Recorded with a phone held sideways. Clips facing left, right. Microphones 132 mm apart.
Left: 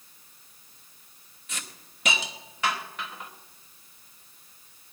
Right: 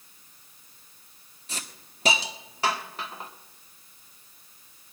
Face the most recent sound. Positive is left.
turn(degrees=-35)  # may be behind; listen again after turning